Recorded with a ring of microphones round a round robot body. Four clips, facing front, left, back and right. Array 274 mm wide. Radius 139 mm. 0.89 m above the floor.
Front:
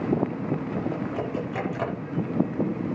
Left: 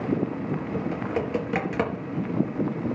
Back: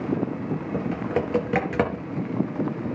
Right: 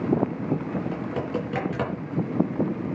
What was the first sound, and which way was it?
Typing on a keyboard, 170° left.